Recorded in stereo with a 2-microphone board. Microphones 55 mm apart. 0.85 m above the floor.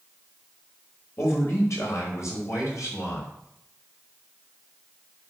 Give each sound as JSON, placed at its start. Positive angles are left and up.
{"t": 1.2, "sound": "a man speaking", "side_deg": 55, "distance_m": 4.5}